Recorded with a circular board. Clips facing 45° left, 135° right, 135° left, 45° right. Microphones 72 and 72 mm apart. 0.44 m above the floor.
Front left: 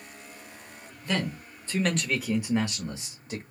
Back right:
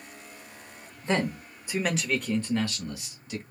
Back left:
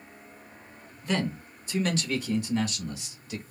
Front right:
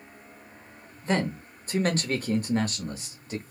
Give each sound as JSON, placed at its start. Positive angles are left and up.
{"t": 1.0, "sound": "a man speaking", "azimuth_deg": -90, "distance_m": 1.1}